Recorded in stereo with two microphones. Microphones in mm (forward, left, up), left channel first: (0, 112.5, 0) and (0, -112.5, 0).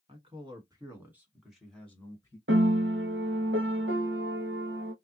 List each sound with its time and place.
0.1 s a man speaking: 25° right (ahead or behind), 1.5 m; by 2.4 s 15° left (ahead or behind), 1.4 m
2.5 s a piano: 70° right (ahead or behind), 0.7 m